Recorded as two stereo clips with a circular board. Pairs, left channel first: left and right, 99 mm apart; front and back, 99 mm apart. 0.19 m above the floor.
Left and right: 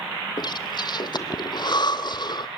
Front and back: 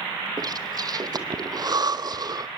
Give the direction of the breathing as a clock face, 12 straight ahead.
8 o'clock.